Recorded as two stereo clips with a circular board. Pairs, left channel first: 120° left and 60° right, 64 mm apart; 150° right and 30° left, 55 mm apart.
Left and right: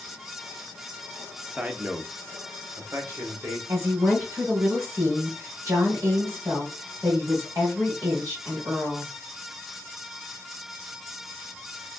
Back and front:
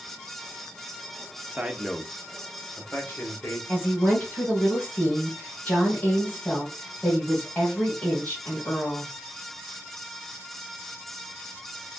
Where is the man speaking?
5° left, 0.8 m; by 3.6 s 105° right, 1.6 m.